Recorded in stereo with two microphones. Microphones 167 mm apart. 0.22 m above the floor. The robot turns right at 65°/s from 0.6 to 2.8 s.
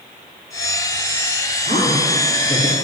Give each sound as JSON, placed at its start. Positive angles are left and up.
{"t": 1.6, "sound": "a woman speaking", "azimuth_deg": -35, "distance_m": 5.0}